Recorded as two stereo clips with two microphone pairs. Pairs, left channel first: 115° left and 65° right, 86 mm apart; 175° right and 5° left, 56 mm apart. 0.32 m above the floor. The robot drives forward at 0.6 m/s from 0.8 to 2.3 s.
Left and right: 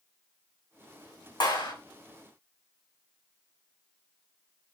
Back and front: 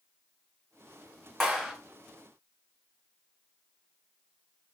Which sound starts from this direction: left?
A clap, at 1.4 s.